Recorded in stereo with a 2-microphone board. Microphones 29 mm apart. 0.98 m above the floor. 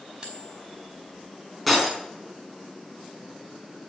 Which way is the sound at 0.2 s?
30° right (ahead or behind).